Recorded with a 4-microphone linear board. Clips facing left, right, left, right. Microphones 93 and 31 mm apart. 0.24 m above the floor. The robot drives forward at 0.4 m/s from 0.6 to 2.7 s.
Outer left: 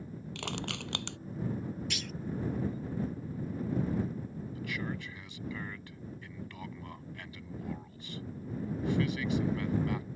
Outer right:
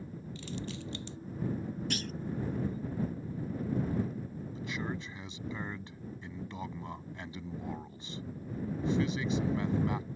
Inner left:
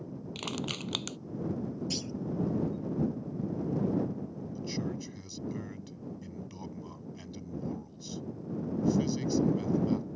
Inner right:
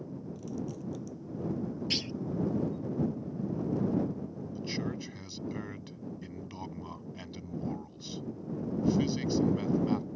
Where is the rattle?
No rattle in this recording.